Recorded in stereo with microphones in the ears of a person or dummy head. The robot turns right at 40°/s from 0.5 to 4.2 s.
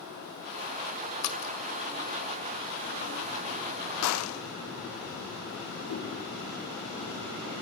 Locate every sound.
1.2 s a splash: 55° left (ahead or behind), 1.8 m; by 1.5 s 50° left (ahead or behind), 1.8 m
4.0 s a gunshot: 85° left, 0.5 m; by 4.4 s 75° left (ahead or behind), 0.5 m
5.9 s a whoosh: 65° left (ahead or behind), 9 m